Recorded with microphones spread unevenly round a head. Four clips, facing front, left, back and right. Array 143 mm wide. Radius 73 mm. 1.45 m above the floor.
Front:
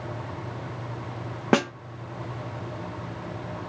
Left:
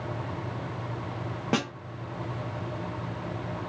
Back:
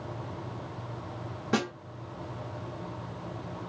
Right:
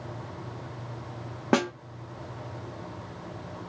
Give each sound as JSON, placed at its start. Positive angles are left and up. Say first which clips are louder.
{"t": 1.5, "sound": "a snare drum", "louder": "right 5 dB, front 7 dB", "azimuth_deg": -25, "distance_m": 0.8}